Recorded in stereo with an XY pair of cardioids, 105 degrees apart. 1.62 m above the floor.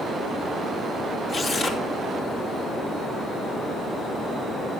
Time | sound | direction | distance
1.3 | tearing paper | 50° left | 2.5 m